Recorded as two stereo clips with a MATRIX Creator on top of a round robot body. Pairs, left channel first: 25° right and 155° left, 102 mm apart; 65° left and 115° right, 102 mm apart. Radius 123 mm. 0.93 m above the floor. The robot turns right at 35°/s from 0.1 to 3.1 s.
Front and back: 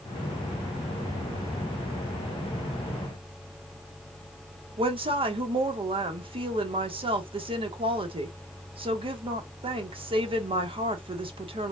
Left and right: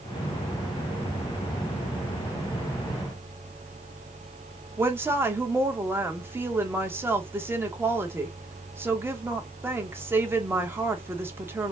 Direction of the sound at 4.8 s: Straight behind.